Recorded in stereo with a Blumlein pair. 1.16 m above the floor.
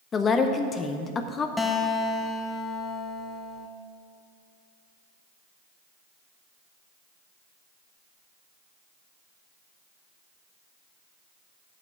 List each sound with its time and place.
0.1 s a woman speaking: 20° left, 0.5 m
1.6 s a guitar: 10° left, 0.7 m